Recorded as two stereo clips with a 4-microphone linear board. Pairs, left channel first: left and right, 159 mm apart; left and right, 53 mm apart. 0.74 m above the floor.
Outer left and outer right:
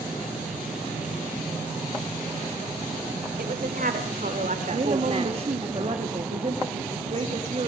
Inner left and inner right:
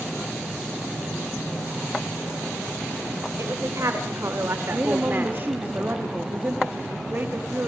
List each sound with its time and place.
3.4 s a woman speaking: 70° right (ahead or behind), 3 m; by 5.7 s 30° right (ahead or behind), 1.7 m
4.7 s a woman speaking: 40° right (ahead or behind), 1.3 m